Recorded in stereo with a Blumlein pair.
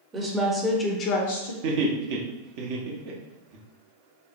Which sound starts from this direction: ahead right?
Laughter, at 1.6 s.